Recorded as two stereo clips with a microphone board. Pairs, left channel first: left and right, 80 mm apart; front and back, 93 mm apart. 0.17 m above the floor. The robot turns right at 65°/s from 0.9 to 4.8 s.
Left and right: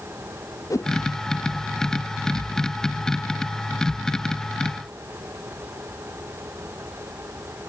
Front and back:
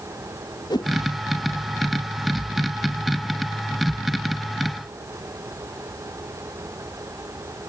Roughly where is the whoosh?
Ahead left.